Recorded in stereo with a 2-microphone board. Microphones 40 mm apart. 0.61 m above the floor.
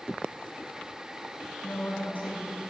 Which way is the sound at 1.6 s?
45° left (ahead or behind).